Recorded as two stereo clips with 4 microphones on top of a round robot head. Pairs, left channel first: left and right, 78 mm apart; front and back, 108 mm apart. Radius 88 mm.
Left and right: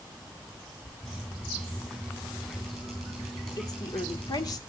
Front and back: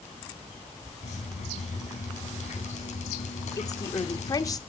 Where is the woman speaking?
50° left, 1.5 m.